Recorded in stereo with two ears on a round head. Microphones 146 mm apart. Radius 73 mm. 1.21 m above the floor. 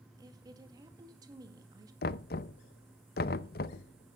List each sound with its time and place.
0.2 s a woman speaking: 25° right (ahead or behind), 1.7 m
2.0 s knocking: 60° left (ahead or behind), 0.6 m